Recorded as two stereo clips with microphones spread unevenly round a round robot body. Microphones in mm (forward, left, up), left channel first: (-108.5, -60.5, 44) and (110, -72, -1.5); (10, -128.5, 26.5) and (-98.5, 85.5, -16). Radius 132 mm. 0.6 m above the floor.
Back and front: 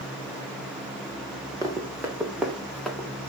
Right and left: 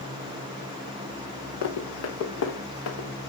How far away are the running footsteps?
About 3.5 m.